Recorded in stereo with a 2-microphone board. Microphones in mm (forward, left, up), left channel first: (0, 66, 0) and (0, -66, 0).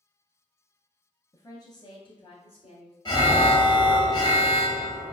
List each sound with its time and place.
1.3 s a woman speaking: 25° left (ahead or behind), 1.5 m; by 3.0 s 50° left (ahead or behind), 1.8 m
3.0 s an alarm: 35° left (ahead or behind), 1.1 m